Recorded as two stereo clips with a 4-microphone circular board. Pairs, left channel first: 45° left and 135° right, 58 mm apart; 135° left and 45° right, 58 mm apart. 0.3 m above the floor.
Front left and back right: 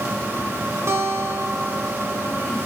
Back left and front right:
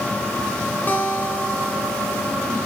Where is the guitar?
165° right, 2 m.